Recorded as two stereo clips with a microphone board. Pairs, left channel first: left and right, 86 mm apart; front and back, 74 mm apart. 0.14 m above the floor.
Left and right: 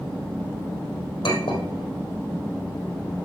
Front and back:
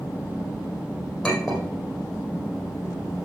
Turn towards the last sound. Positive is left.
turn(degrees=85)